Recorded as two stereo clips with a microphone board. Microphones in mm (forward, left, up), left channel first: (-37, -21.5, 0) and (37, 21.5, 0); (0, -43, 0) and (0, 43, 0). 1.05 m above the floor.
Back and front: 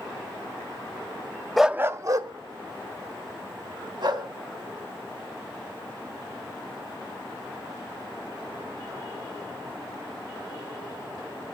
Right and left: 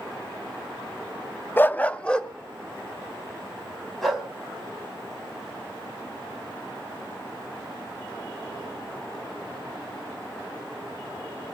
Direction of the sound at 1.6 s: 65° right.